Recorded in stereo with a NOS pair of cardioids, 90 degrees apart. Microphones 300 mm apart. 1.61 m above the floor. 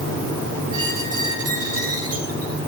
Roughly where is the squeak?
Ahead right.